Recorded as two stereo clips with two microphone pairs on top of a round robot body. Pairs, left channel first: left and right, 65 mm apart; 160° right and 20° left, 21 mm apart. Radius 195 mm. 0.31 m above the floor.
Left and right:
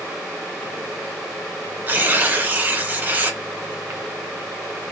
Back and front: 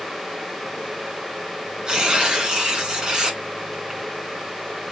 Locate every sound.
1.9 s tearing paper: 30° right, 2 m